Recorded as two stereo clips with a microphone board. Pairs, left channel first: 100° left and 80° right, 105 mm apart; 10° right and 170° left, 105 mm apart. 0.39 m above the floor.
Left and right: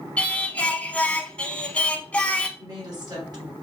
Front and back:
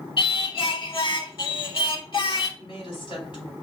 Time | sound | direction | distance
0.2 | singing | 20° left | 0.6 m
2.6 | a woman speaking | 40° right | 2.5 m